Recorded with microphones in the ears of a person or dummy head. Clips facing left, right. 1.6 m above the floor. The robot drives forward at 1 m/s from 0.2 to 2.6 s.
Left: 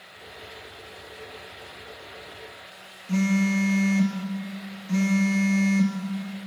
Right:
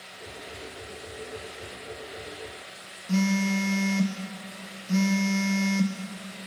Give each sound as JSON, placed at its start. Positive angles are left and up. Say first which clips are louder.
{"t": 3.1, "sound": "a phone buzzing", "louder": "left 2 dB", "side_deg": -5, "distance_m": 0.8}